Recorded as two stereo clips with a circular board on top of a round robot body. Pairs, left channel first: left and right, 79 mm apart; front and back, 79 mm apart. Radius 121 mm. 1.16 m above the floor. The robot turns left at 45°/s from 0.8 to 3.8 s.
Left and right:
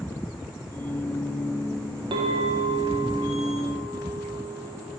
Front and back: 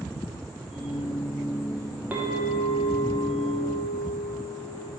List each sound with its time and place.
2.1 s a clink: 110° right, 0.6 m; by 4.9 s 175° left, 0.6 m